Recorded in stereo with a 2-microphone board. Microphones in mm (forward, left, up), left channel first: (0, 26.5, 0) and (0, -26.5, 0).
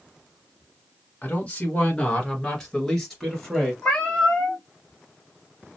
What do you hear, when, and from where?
1.2 s a man speaking: 30° left (ahead or behind), 1.5 m; by 3.7 s centre (ahead or behind), 2.5 m
3.8 s a cat meowing: 10° left (ahead or behind), 1.4 m